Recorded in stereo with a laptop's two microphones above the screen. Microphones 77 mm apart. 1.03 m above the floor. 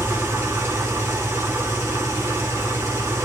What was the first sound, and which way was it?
An engine running, 30° right (ahead or behind).